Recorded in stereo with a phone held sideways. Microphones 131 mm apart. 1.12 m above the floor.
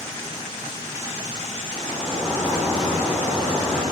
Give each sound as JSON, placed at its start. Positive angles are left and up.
{"t": 1.7, "sound": "a sliding door", "side_deg": 5, "distance_m": 2.5}